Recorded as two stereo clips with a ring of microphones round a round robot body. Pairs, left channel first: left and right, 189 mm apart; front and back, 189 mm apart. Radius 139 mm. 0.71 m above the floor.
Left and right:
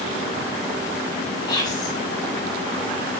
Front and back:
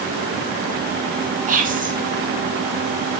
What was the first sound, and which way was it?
Whispering, 155° left.